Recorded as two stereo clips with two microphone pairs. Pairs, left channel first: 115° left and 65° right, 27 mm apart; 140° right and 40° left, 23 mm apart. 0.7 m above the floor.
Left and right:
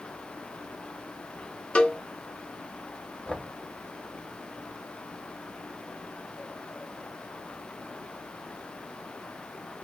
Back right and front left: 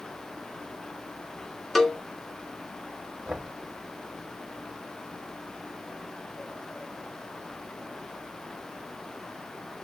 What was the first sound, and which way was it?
A cowbell, 130° left.